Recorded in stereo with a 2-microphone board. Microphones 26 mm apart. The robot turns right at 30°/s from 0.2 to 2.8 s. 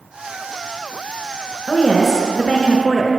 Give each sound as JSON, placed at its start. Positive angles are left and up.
{"t": 1.7, "sound": "a woman speaking", "side_deg": 20, "distance_m": 1.3}